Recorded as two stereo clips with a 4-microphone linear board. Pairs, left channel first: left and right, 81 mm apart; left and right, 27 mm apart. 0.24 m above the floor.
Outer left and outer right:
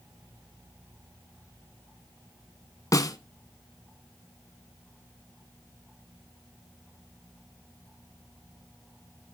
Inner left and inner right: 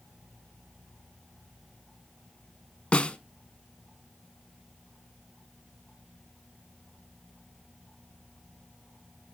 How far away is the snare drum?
About 0.6 m.